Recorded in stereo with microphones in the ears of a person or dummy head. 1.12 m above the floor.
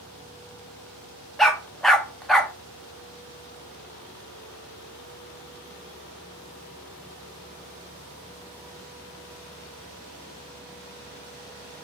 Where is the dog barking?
Centre (ahead or behind), 0.6 m.